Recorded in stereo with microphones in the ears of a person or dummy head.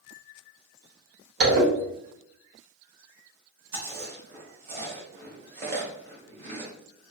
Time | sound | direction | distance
1.4 | a zipper | 65° right (ahead or behind) | 1.0 m
3.7 | chewing | 50° right (ahead or behind) | 0.7 m